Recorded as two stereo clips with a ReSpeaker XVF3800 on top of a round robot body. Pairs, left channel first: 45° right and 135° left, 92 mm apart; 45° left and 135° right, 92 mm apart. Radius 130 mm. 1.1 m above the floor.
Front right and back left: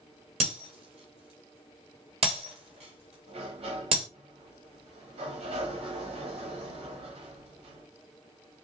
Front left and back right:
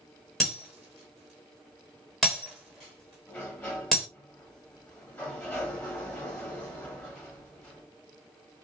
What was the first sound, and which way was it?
Breaking glass, 130° left.